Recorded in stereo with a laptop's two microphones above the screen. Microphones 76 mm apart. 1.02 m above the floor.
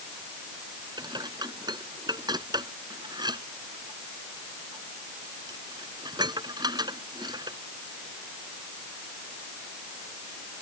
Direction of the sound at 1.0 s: 70° right (ahead or behind).